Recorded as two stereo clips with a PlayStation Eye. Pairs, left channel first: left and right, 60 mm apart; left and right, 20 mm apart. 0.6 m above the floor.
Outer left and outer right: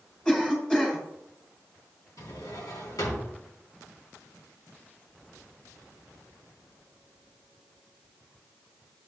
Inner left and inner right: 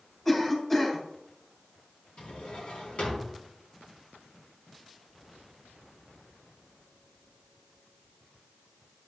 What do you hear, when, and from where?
0.2 s a cough: 15° left (ahead or behind), 5.5 m
2.2 s a drawer: 85° left, 3.5 m